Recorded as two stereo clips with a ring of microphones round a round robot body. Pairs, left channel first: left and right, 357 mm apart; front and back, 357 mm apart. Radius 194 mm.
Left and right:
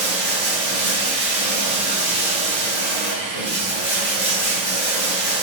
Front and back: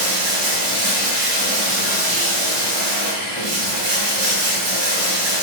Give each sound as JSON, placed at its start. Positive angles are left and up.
{"t": 0.0, "sound": "running water", "azimuth_deg": 165, "distance_m": 1.8}